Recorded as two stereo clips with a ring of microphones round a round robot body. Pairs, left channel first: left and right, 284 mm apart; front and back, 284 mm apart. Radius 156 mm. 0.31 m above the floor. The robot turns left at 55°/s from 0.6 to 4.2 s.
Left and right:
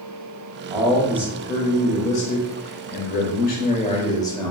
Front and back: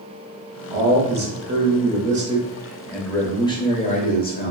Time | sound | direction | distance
0.7 | a man speaking | 145° right | 1.1 m